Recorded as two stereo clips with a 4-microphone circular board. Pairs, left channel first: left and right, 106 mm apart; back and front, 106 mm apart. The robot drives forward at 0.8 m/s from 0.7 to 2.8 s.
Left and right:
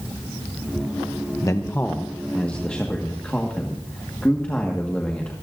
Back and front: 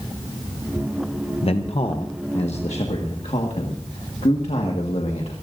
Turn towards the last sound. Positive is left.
turn(degrees=170)